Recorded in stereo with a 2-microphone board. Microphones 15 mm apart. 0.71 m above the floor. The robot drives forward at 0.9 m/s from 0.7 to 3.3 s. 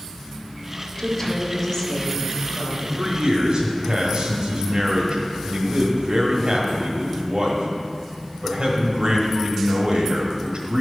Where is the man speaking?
65° right (ahead or behind), 1.3 m.